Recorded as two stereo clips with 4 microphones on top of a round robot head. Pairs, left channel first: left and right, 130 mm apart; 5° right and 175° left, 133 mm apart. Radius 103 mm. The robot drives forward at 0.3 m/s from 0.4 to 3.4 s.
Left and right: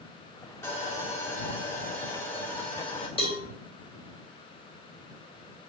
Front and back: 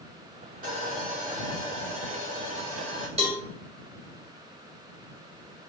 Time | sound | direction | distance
0.6 | sawing | 160° left | 2.5 m
3.2 | a cowbell | 135° left | 2 m